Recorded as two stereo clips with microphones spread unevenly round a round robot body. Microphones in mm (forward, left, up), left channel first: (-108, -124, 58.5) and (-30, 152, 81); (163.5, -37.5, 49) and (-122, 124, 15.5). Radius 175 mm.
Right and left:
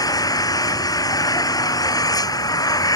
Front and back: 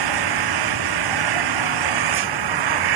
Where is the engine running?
175° left.